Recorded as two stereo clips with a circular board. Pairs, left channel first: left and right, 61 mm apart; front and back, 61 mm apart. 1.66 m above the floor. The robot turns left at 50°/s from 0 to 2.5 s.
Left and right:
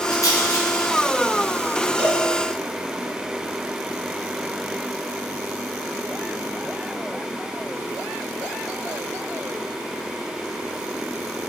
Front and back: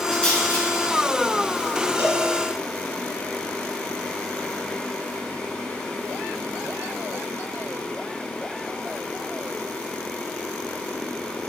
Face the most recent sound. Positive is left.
turn(degrees=-170)